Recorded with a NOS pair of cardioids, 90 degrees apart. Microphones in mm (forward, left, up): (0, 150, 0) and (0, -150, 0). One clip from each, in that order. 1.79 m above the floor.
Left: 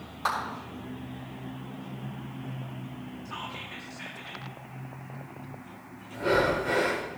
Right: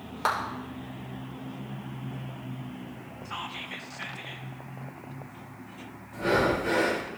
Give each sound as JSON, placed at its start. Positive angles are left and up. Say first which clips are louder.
{"t": 0.2, "sound": "a clap", "louder": "right 2 dB", "azimuth_deg": -45, "distance_m": 5.0}
{"t": 3.2, "sound": "whispering", "louder": "right 3 dB", "azimuth_deg": -30, "distance_m": 1.8}
{"t": 6.1, "sound": "breathing", "louder": "even", "azimuth_deg": -55, "distance_m": 4.0}